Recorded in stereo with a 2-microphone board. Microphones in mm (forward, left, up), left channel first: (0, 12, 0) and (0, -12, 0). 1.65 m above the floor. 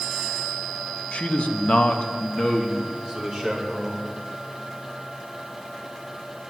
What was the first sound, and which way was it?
A man speaking, 65° left (ahead or behind).